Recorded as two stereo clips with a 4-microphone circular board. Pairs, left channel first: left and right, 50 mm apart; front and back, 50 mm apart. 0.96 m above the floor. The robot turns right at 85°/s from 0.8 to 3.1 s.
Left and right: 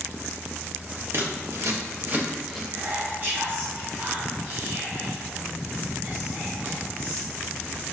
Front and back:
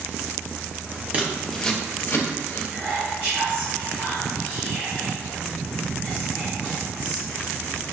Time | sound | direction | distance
1.1 | scissors | 120° right | 0.7 m
2.7 | whispering | 85° right | 1.2 m